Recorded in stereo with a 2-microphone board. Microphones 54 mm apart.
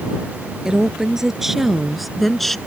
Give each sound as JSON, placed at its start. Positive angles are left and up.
{"t": 0.7, "sound": "a woman speaking", "side_deg": -10}